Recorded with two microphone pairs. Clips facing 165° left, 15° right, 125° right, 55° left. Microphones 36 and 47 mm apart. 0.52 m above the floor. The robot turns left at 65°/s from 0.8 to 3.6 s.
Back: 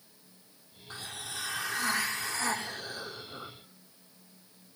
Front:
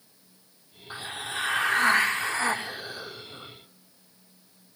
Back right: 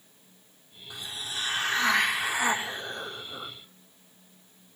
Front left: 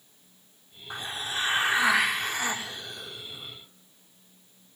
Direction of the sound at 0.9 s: 40° left.